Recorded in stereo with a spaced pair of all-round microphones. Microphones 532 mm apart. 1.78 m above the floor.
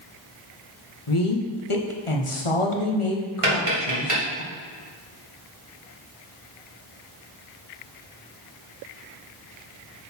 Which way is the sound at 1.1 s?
65° left (ahead or behind).